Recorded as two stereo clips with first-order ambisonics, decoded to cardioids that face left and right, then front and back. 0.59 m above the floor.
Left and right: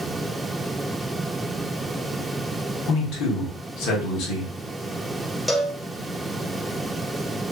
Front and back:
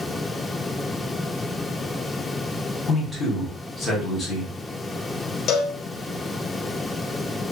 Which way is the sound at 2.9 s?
75° left.